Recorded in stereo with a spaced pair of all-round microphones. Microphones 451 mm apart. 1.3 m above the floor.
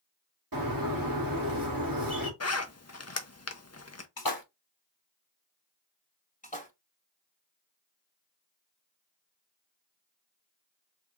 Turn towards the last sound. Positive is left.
turn(degrees=20)  # may be behind; listen again after turning